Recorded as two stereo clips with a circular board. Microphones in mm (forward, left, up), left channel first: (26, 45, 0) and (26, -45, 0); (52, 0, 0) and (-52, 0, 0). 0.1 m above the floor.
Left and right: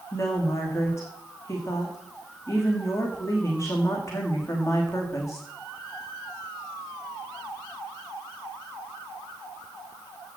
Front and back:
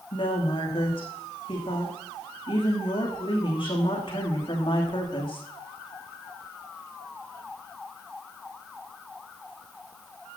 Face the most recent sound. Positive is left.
turn(degrees=35)